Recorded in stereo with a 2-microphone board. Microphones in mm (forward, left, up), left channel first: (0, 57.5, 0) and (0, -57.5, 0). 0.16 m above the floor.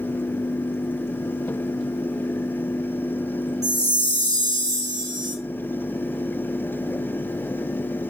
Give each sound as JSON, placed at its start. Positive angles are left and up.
{"t": 3.6, "sound": "a chime", "side_deg": -30, "distance_m": 1.5}